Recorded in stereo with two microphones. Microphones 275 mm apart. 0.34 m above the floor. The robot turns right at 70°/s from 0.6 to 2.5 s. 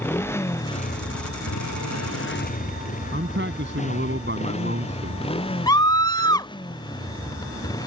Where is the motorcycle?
10° left (ahead or behind); by 7.9 s 15° left (ahead or behind).